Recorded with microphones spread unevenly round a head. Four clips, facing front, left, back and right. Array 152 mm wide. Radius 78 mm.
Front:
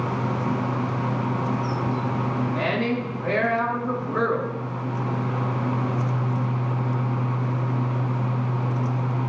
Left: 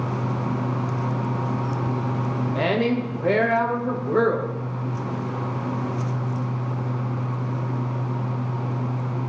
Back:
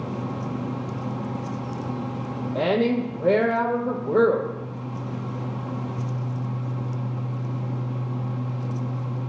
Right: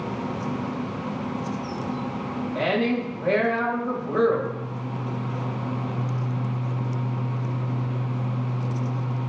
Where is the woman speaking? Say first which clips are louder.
Left 1 dB, back 8 dB; 155° left, 1.2 m.